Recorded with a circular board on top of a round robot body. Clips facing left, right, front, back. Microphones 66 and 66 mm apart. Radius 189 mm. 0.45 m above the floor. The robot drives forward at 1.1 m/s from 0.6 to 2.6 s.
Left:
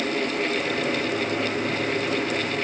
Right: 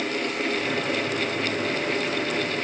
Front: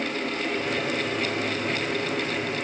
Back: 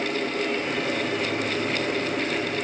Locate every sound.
Only background noise.